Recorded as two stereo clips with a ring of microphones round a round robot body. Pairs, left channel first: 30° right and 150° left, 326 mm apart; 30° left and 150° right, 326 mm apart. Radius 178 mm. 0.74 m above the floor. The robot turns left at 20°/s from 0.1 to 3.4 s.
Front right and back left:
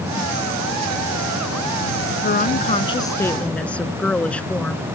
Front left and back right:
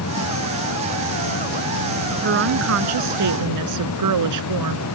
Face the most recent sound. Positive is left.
turn(degrees=-115)